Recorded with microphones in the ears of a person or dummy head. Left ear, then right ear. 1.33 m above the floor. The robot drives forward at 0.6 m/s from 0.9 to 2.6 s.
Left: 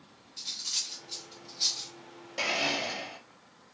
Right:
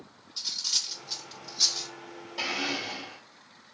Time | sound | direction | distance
0.4 | cutlery clinking | 55° right (ahead or behind) | 1.1 m
2.4 | a blender | 15° left (ahead or behind) | 2.5 m